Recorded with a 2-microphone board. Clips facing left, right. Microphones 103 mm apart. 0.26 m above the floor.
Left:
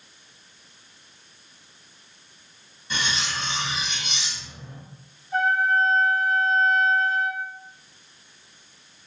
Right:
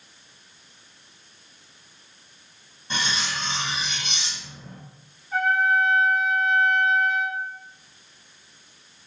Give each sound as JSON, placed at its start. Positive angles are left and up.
{"t": 2.9, "sound": "cutlery clinking", "side_deg": -30, "distance_m": 1.0}
{"t": 5.3, "sound": "a trumpet", "side_deg": -70, "distance_m": 1.3}